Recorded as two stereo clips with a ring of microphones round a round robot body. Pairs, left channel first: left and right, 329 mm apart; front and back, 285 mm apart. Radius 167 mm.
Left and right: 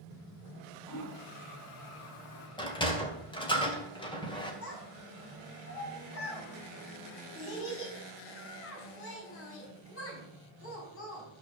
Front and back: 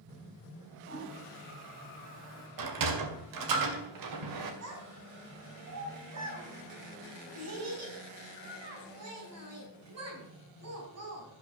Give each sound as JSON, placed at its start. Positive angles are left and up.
{"t": 0.9, "sound": "a toilet flushing", "azimuth_deg": 135, "distance_m": 3.5}
{"t": 2.6, "sound": "a sliding door", "azimuth_deg": 165, "distance_m": 2.0}
{"t": 4.6, "sound": "a child speaking", "azimuth_deg": 145, "distance_m": 5.0}